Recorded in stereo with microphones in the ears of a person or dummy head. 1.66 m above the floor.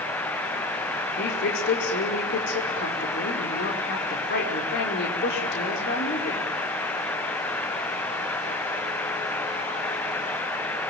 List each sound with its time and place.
1.2 s a woman speaking: 65° left (ahead or behind), 5 m